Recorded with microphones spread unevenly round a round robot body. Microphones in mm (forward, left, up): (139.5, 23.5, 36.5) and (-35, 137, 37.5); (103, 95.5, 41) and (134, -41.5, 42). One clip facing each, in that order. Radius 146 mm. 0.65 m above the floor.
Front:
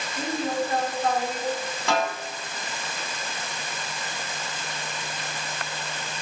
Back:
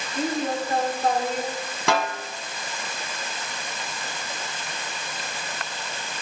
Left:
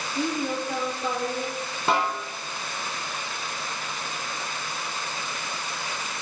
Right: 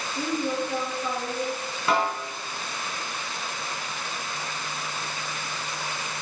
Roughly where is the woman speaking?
Left.